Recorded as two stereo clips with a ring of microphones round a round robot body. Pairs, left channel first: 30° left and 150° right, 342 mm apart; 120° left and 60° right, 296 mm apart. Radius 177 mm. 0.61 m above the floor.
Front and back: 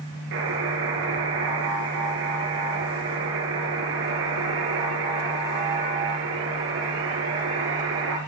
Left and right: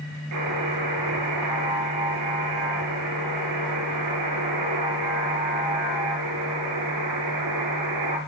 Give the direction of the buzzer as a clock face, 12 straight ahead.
3 o'clock.